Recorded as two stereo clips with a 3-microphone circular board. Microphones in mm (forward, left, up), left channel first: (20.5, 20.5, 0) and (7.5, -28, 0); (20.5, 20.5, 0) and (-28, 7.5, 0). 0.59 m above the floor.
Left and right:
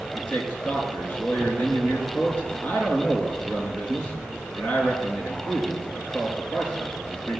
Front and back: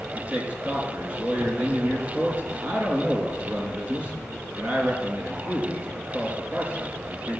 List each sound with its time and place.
0.1 s a man speaking: 135° left, 6.5 m